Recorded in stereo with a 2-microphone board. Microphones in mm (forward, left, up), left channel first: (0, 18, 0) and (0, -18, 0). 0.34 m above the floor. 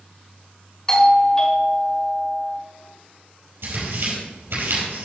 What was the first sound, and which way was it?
A doorbell, 20° left (ahead or behind).